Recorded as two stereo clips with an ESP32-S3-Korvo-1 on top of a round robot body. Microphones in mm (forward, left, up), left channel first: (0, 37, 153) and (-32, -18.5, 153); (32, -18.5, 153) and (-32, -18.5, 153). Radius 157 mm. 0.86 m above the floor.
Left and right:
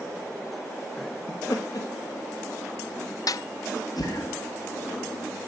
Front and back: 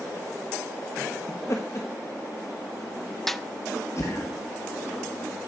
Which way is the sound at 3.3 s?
85° left.